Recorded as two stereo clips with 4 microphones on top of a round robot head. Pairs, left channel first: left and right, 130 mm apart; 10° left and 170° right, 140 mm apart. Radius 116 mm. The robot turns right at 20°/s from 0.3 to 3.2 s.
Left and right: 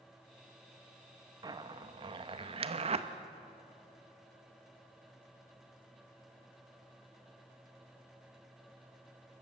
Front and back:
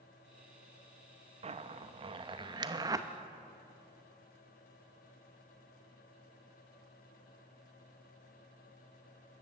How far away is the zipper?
About 0.9 m.